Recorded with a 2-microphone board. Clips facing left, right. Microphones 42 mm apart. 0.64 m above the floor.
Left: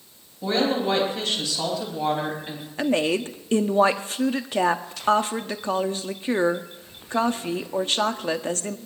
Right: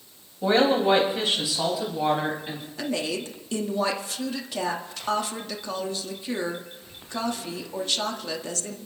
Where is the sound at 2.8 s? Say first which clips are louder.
Left 7 dB; 35° left (ahead or behind), 1.0 m.